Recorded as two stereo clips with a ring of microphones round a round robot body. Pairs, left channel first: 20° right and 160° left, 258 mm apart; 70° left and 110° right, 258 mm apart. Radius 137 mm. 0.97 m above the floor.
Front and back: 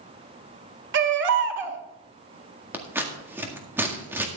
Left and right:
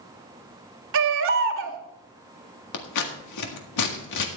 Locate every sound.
0.9 s a baby crying: 155° right, 1.5 m
2.7 s scissors: 75° left, 1.8 m